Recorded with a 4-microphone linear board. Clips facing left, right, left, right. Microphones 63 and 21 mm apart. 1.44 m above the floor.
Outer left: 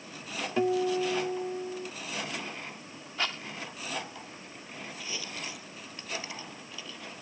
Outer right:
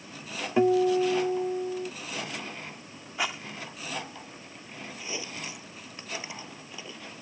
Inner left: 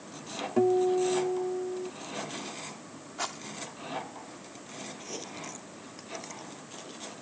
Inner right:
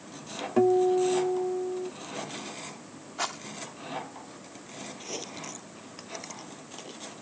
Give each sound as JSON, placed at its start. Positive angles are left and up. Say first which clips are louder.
{"t": 0.6, "sound": "a guitar", "louder": "outer right 5 dB, inner right 2 dB", "side_deg": -20}
{"t": 3.2, "sound": "a rattle", "louder": "outer right 2 dB, inner right 3 dB", "side_deg": -15}
{"t": 5.0, "sound": "chewing", "louder": "outer right 3 dB, inner right 4 dB", "side_deg": -20}